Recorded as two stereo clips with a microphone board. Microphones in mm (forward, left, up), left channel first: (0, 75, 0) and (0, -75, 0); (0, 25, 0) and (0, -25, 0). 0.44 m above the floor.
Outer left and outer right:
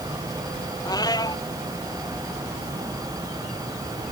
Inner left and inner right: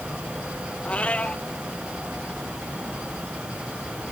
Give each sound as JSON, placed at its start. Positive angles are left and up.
{"t": 0.8, "sound": "a cat meowing", "side_deg": 25}